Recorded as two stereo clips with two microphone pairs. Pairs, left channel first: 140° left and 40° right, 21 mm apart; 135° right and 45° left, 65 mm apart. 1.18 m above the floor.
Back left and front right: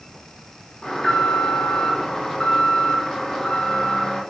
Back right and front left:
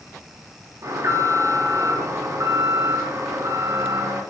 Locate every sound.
0.8 s an alarm: 80° left, 4.5 m